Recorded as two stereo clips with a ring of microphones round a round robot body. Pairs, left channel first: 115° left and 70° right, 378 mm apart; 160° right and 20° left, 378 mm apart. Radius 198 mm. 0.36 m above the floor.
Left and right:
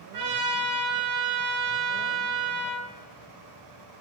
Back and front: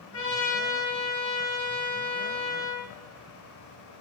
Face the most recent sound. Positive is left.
turn(degrees=-110)